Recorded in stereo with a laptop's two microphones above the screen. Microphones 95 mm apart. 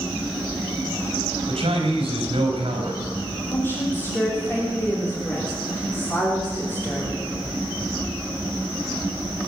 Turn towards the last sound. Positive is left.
turn(degrees=25)  # may be behind; listen again after turning